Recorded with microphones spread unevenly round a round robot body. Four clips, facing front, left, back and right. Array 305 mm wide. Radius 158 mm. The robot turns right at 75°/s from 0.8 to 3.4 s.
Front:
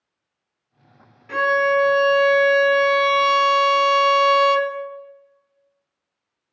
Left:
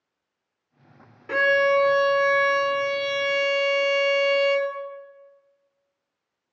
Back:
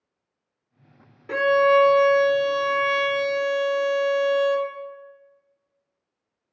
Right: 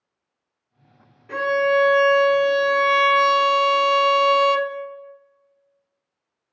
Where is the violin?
150° left, 0.6 m; by 4.7 s 50° right, 0.6 m.